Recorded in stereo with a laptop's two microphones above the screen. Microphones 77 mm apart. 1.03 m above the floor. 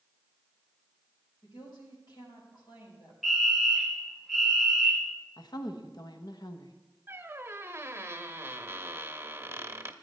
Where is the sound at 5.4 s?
65° left (ahead or behind), 1.0 m.